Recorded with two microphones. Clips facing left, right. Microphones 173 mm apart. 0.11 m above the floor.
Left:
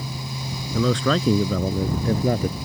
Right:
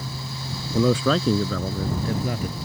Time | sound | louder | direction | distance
0.7 | a man speaking | right 1 dB | 20° right (ahead or behind) | ?